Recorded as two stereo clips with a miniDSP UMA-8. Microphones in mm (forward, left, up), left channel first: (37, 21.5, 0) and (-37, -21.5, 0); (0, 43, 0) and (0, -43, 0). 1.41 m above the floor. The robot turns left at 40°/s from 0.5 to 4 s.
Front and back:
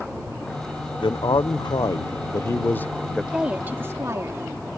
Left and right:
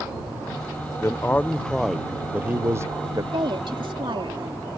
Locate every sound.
1.0 s a man speaking: 35° left; by 3.2 s 55° right
3.3 s a woman speaking: 70° right; by 4.7 s 95° right